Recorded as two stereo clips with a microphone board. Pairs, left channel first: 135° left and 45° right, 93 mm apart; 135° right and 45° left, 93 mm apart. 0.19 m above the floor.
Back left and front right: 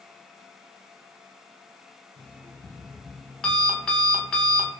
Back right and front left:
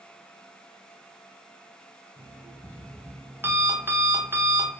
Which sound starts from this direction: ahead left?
An alarm clock, at 2.2 s.